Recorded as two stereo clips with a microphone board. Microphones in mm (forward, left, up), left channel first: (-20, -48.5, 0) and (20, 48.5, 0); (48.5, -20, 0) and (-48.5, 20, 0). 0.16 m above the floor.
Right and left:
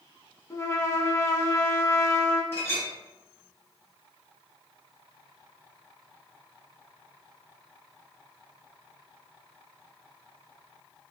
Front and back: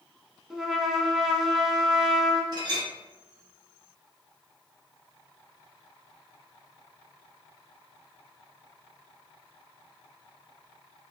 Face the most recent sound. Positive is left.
turn(degrees=-170)